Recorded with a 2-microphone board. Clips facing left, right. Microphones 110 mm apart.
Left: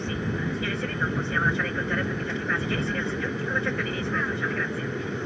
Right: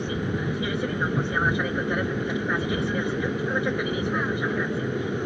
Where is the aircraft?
15° right (ahead or behind).